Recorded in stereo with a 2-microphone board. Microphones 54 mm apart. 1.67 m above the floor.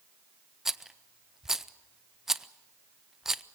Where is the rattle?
10° right (ahead or behind), 0.5 m.